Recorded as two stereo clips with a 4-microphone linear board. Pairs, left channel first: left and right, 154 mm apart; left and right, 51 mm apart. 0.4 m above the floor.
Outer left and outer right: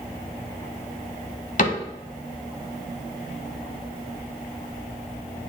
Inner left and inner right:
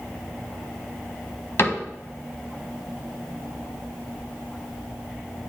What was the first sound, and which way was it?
A cupboard door, 55° left (ahead or behind).